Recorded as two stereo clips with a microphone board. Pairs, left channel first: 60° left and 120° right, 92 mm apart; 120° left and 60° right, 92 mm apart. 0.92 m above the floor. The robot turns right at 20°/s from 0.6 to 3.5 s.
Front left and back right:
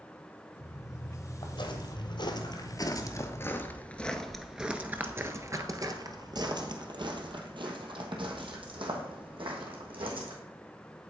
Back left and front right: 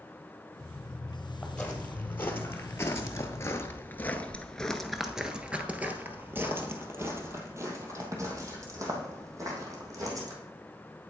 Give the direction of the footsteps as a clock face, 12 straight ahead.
11 o'clock.